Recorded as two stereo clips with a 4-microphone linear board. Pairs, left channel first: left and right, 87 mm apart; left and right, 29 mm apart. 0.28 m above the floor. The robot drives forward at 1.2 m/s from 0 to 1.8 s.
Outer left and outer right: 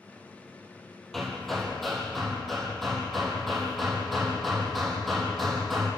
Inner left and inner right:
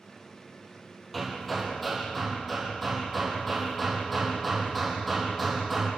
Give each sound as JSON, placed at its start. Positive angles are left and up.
{"t": 1.1, "sound": "hammering", "side_deg": 5, "distance_m": 3.5}